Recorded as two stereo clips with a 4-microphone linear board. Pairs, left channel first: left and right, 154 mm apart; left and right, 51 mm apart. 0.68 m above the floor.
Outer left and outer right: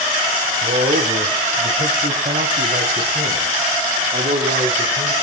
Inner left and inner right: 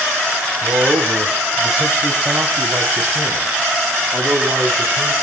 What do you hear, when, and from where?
0.6 s a man speaking: 70° right (ahead or behind), 4 m